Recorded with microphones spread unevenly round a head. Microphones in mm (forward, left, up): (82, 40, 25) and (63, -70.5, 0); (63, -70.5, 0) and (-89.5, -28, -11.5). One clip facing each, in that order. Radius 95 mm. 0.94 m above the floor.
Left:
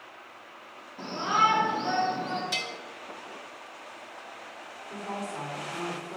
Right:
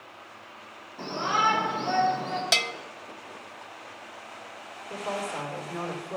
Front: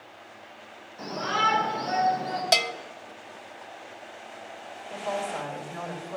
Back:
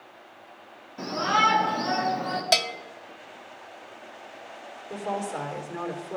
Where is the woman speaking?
165° right, 3.5 m.